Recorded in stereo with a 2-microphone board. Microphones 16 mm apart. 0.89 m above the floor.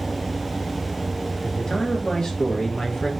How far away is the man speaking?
About 1.8 m.